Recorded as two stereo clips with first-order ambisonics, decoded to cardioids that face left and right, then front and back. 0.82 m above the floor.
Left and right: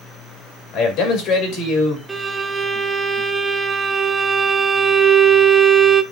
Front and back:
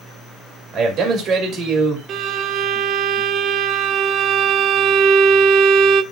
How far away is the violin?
About 0.5 m.